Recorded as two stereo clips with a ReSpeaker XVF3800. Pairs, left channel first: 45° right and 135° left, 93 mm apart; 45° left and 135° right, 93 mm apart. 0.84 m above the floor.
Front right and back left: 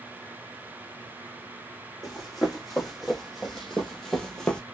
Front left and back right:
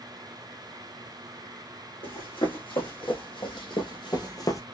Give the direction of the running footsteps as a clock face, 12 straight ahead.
10 o'clock.